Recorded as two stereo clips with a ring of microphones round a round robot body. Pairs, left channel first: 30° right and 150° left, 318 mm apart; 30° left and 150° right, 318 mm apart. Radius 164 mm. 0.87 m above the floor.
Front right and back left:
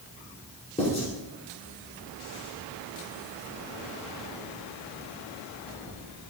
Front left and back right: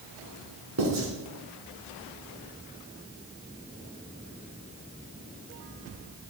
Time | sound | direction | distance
0.8 | writing | 100° right | 2.5 m